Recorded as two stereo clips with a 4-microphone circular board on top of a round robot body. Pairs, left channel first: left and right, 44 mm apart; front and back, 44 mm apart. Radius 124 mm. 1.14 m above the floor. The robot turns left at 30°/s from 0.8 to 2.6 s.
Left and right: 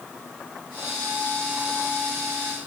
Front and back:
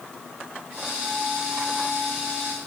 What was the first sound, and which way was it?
Only background noise.